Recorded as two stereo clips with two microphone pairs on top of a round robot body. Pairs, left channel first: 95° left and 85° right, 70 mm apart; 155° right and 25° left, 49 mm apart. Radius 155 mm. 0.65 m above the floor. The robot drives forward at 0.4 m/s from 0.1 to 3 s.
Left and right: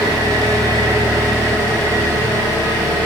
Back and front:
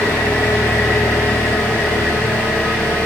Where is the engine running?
135° right, 1.9 m; by 3.1 s 150° right, 3 m.